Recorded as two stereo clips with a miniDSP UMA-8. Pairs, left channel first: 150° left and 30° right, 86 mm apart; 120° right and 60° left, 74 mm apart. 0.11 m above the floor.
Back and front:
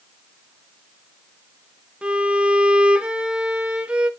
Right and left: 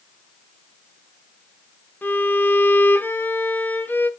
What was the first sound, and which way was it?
A violin, 95° right.